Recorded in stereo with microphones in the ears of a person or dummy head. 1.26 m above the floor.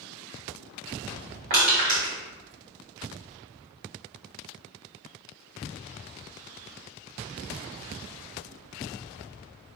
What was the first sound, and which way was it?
Crushing, 50° right (ahead or behind).